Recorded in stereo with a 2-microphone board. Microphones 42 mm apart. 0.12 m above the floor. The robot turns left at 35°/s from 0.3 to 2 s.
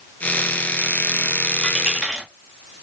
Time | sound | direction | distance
1.6 | a dropped coin | 10° left (ahead or behind) | 1.7 m